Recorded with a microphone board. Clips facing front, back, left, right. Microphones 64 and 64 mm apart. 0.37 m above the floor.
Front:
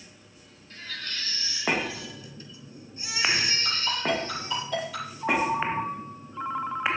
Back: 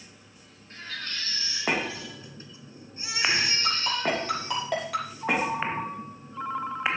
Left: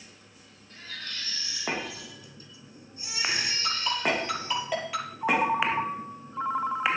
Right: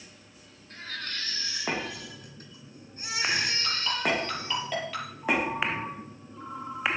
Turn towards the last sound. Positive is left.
turn(degrees=85)